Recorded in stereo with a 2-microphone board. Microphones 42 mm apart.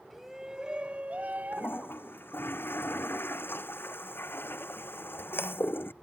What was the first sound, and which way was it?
A shout, 5° right (ahead or behind).